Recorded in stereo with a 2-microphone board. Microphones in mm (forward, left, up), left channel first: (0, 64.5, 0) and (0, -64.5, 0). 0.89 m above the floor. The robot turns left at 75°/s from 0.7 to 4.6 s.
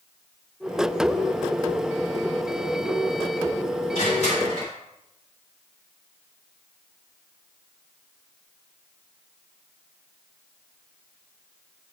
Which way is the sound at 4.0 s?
85° left.